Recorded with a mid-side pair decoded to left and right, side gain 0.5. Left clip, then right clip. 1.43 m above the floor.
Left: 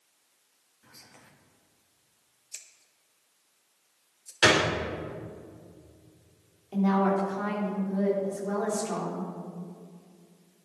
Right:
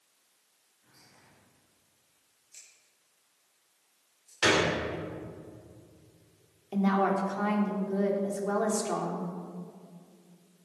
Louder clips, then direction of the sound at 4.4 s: Left 3 dB; 35° left.